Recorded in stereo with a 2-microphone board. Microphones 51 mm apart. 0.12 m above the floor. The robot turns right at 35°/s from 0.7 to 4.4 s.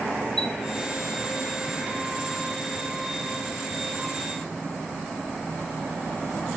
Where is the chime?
10° left (ahead or behind), 1.3 m.